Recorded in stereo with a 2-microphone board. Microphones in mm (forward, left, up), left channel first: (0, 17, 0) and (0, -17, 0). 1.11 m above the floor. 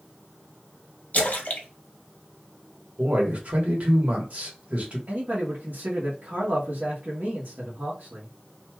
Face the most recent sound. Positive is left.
turn(degrees=-65)  # may be behind; listen again after turning